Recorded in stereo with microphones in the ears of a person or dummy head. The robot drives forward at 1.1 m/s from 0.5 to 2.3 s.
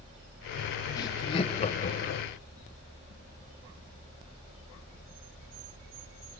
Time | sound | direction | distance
1.0 | laughter | 20° left (ahead or behind) | 1.7 m